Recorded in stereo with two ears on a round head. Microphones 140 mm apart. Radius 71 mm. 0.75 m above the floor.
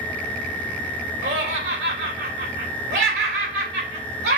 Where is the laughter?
70° right (ahead or behind), 2.5 m.